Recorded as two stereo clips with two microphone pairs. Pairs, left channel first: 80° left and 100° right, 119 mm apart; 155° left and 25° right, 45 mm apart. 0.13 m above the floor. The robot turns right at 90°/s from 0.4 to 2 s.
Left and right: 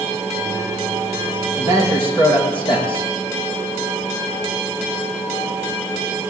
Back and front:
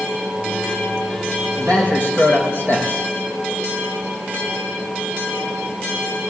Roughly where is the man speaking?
Left.